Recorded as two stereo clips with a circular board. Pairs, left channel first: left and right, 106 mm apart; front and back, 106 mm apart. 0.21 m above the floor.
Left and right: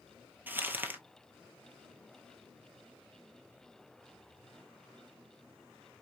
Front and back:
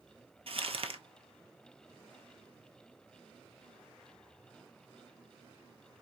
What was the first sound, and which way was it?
Crumpling, 160° right.